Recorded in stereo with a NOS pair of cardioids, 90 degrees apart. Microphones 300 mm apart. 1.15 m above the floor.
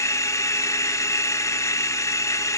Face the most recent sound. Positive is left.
turn(degrees=10)